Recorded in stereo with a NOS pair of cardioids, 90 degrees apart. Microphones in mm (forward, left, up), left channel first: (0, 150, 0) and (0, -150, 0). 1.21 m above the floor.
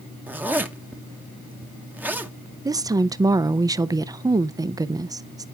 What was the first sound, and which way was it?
A zipper, 5° right.